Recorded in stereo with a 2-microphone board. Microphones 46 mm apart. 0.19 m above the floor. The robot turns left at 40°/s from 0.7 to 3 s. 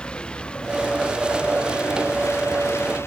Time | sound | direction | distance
0.0 | a vehicle | 155° left | ?